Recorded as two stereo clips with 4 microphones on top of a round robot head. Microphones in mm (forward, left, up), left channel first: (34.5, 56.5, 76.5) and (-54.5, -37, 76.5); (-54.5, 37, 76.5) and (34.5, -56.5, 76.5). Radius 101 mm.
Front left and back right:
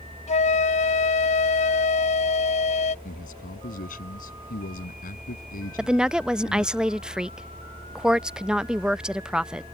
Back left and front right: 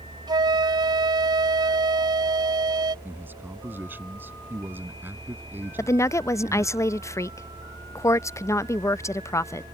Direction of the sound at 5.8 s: 150° left.